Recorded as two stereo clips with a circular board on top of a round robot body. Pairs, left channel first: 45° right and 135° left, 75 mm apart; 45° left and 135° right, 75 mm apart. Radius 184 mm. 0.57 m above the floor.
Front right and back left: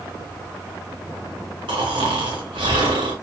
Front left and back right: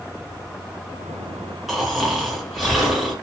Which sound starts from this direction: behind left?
Snoring, at 1.7 s.